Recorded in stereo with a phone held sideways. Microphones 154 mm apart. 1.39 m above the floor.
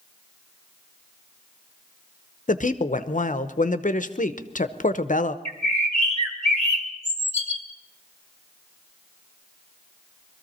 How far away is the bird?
About 2 m.